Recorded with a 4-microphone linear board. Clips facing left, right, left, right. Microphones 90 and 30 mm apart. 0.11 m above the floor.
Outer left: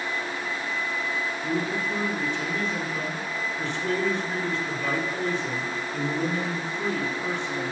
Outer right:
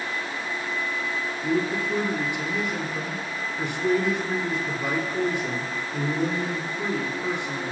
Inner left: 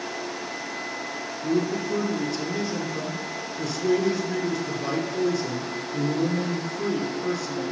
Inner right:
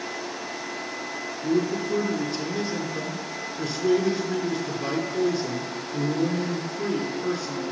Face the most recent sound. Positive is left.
turn(degrees=-15)  # may be behind; listen again after turning